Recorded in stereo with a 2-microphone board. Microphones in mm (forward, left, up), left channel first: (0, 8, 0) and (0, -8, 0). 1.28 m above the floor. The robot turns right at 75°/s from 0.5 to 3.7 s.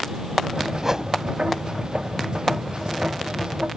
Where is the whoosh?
15° right (ahead or behind); by 1.1 s 40° right (ahead or behind).